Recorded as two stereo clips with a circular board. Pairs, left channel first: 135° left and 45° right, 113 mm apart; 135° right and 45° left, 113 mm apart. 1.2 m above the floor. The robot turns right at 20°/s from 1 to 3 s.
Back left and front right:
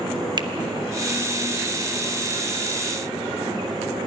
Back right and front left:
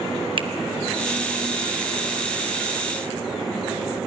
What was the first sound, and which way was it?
A finger snap, 5° left.